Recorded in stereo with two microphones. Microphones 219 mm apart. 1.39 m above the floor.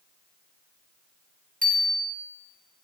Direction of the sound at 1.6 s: 40° right (ahead or behind).